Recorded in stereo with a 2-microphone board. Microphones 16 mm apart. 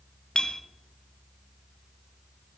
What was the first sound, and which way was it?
A clink, 55° left (ahead or behind).